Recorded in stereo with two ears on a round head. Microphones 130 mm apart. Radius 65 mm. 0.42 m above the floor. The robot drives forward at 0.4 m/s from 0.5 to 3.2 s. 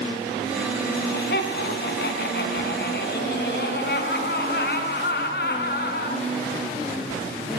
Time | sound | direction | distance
0.9 | laughter | 75° left (ahead or behind) | 4.5 m